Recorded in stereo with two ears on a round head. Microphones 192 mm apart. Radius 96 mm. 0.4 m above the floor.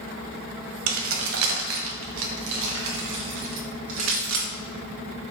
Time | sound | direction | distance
0.9 | keys jangling | 65° right (ahead or behind) | 1.5 m